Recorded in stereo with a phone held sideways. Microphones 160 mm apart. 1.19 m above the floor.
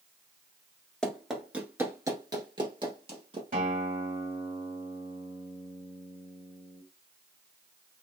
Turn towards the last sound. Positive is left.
turn(degrees=-60)  # may be behind; listen again after turning